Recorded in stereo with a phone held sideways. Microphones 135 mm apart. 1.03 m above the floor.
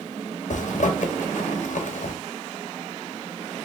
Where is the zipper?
70° left (ahead or behind), 0.7 m.